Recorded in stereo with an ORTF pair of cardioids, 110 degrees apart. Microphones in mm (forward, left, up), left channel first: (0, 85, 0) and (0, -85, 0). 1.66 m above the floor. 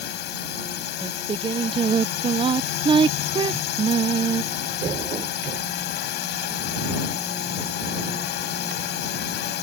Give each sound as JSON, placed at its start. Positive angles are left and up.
{"t": 0.0, "sound": "a drone", "azimuth_deg": 70}
{"t": 1.0, "sound": "singing", "azimuth_deg": -30}